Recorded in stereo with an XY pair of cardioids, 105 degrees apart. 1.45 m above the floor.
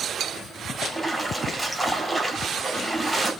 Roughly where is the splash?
Ahead.